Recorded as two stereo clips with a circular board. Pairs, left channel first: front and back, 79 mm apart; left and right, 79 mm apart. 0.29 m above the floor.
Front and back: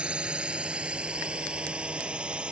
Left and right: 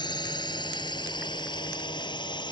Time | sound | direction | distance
0.0 | a drone | 105° left | ?